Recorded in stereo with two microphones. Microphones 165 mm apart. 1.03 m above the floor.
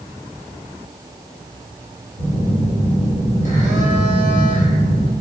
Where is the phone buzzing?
50° right (ahead or behind), 4 m.